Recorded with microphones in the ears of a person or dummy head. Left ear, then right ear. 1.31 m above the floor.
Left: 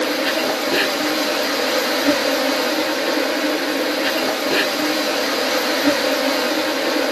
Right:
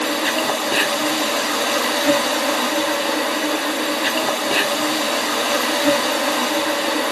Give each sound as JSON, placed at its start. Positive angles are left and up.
{"t": 0.0, "sound": "an insect", "side_deg": -10, "distance_m": 1.0}